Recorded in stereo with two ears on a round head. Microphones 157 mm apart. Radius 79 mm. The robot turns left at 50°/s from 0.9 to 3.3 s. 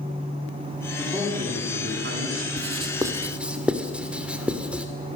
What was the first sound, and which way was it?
A man speaking, 10° right.